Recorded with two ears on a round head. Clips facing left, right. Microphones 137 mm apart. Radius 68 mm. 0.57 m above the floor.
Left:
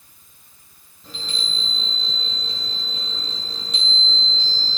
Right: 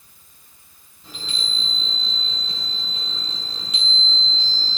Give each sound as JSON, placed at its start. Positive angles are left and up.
{"t": 1.0, "sound": "a chime", "side_deg": -5, "distance_m": 8.0}